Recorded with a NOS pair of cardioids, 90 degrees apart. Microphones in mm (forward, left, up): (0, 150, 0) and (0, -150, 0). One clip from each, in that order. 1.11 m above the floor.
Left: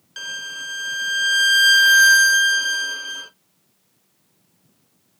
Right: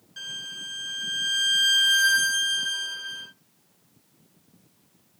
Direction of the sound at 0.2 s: 55° left.